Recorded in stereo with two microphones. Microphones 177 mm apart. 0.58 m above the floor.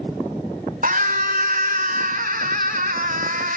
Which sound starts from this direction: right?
A scream, at 0.8 s.